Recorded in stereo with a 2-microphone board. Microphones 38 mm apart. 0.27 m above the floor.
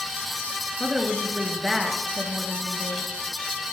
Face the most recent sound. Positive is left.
turn(degrees=-10)  # may be behind; listen again after turning